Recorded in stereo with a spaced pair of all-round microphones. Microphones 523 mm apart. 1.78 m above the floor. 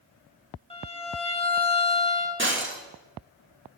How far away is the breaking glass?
About 1.2 m.